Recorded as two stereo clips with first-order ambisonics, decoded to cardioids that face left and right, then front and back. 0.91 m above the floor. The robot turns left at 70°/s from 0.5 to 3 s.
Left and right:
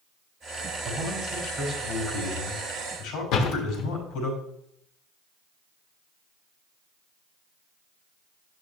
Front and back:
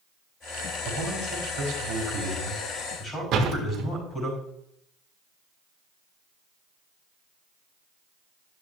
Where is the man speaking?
140° right, 5 m; by 4.3 s 70° left, 5 m.